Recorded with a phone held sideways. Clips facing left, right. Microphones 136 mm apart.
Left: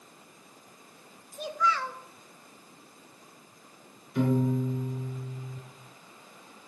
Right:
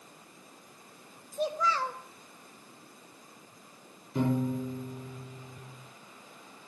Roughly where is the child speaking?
Right.